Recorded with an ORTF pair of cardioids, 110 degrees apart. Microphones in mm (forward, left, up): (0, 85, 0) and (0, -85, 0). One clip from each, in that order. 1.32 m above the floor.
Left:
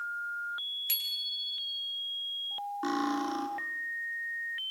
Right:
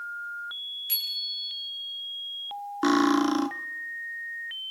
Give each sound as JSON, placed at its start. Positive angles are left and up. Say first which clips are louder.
{"t": 0.9, "sound": "a bicycle bell", "louder": "right 6 dB", "azimuth_deg": 35, "distance_m": 6.0}
{"t": 2.8, "sound": "cutlery clinking", "louder": "right 10 dB", "azimuth_deg": -55, "distance_m": 1.9}